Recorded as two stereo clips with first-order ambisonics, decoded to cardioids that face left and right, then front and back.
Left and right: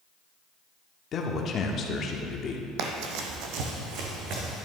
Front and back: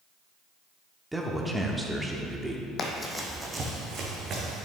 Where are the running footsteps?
70° right, 1.0 m; by 4.7 s 130° right, 2.5 m.